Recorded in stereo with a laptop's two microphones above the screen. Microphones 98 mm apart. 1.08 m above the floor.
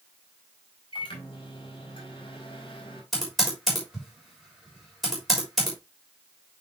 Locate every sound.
0.9 s a microwave: 55° left (ahead or behind), 3.5 m
3.1 s typing on a keyboard: centre (ahead or behind), 3.5 m